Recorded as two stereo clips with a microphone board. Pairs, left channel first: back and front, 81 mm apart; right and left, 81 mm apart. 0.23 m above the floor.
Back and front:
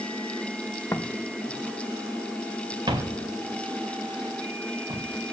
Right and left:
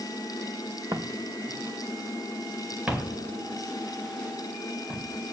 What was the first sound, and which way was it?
Footsteps, 130° left.